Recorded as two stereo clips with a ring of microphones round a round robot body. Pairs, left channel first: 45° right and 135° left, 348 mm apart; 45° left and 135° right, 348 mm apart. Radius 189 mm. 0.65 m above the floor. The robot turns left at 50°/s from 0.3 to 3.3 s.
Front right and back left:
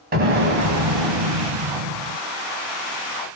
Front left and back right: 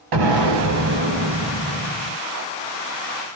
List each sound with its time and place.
0.1 s an explosion: 160° right, 0.8 m; by 2.2 s 105° left, 0.8 m